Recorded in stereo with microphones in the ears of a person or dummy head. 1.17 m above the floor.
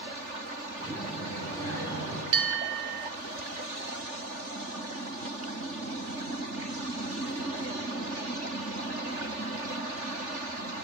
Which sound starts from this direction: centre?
A child speaking, at 0.8 s.